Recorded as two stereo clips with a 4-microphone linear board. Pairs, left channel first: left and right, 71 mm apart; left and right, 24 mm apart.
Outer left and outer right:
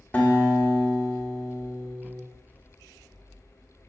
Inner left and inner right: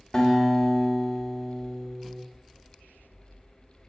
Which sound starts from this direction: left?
A guitar, at 0.1 s.